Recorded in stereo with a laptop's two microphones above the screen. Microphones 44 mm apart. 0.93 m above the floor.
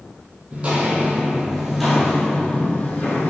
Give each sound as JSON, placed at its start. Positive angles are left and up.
{"t": 0.5, "sound": "footsteps", "side_deg": -35, "distance_m": 1.2}